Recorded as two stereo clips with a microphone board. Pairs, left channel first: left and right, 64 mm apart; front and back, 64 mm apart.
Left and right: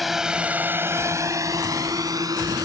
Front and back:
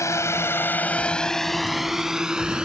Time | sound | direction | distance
0.0 | a drone | straight ahead | ?